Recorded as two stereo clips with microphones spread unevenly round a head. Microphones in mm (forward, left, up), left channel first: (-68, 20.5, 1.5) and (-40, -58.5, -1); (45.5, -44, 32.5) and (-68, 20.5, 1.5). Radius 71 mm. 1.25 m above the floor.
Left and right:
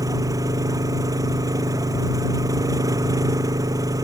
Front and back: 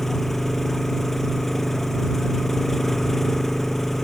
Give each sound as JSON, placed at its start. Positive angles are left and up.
{"t": 0.0, "sound": "an engine running", "azimuth_deg": -115}